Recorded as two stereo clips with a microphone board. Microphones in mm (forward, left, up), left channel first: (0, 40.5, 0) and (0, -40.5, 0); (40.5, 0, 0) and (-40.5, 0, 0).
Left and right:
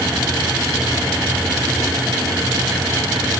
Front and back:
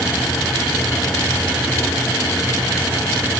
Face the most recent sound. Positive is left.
No sound to turn to.